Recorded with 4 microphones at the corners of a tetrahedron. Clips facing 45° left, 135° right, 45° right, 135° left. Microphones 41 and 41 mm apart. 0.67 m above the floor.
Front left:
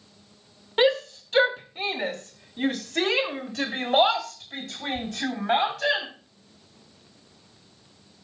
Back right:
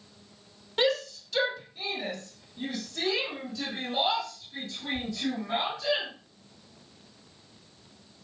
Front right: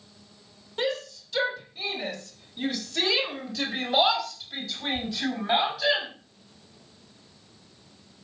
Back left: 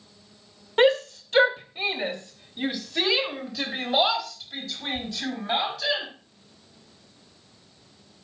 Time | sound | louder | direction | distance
0.8 | a shout | front left 5 dB, back left 10 dB | 105° left | 2.5 m